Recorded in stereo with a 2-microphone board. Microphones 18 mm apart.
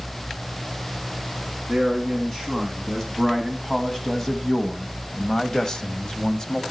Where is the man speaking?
15° left (ahead or behind), 2.5 m; by 6.6 s 30° left (ahead or behind), 1.4 m.